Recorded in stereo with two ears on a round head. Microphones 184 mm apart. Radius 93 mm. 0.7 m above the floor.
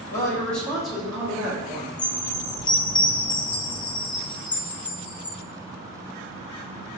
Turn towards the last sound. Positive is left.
turn(degrees=20)  # may be behind; listen again after turning